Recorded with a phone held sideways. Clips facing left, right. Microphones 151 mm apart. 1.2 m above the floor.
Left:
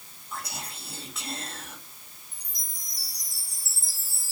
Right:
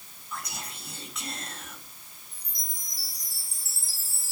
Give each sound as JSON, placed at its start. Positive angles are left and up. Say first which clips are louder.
{"t": 0.3, "sound": "whispering", "louder": "left 1 dB", "side_deg": 30, "distance_m": 3.0}
{"t": 2.3, "sound": "a chime", "louder": "even", "side_deg": 40, "distance_m": 3.0}